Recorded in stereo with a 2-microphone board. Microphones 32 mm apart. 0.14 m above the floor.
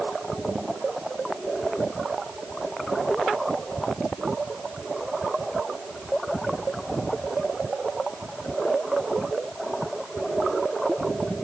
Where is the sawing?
I don't hear sawing.